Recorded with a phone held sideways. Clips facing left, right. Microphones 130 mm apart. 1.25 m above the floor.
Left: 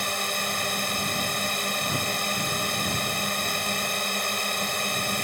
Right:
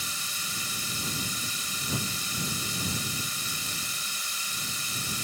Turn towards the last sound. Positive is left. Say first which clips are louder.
# left 11 dB
turn(degrees=65)  # may be behind; listen again after turning